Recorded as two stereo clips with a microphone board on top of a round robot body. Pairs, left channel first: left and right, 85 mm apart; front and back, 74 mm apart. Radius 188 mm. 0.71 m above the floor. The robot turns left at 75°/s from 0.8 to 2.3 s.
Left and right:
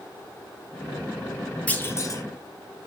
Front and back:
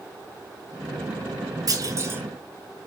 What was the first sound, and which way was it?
A clunk, 160° left.